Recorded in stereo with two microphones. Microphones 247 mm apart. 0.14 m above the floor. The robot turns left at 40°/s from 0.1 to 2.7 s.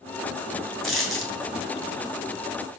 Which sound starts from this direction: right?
A dropped coin, at 0.8 s.